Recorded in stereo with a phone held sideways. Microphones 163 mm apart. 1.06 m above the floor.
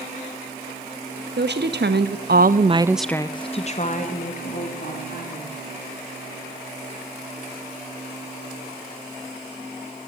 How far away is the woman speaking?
About 1.5 m.